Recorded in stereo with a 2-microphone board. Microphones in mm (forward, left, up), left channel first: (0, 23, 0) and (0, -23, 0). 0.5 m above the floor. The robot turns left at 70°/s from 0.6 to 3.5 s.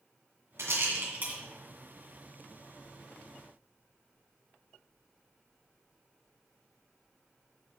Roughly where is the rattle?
Right.